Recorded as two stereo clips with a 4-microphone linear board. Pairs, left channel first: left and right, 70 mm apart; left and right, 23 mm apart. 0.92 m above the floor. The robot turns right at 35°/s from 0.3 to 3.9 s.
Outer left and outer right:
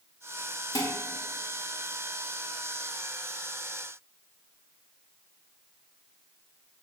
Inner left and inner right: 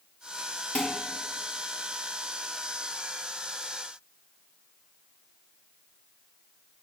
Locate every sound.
0.8 s dishes clattering: 70° left (ahead or behind), 1.4 m; by 0.9 s 75° left (ahead or behind), 1.4 m